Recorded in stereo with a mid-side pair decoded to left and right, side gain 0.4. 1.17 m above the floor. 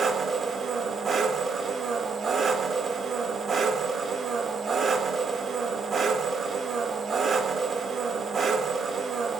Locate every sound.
0.0 s an engine running: 50° right, 0.9 m